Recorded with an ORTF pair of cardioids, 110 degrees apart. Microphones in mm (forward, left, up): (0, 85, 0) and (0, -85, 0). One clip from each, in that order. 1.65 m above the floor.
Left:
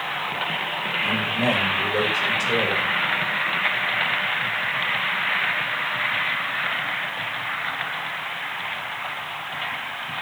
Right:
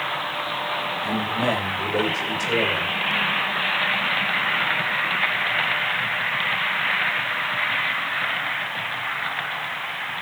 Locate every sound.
1.0 s a man speaking: 5° right, 9 m